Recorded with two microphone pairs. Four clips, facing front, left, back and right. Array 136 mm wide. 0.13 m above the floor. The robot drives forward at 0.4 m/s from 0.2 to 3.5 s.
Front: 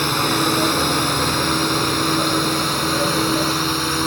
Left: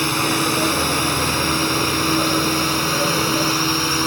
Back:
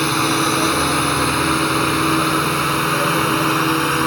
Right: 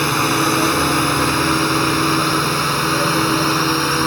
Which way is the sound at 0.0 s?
105° right.